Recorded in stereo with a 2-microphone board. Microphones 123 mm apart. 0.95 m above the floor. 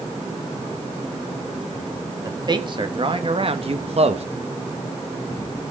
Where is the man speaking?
35° right (ahead or behind), 1.9 m; by 4.3 s 55° right (ahead or behind), 1.1 m.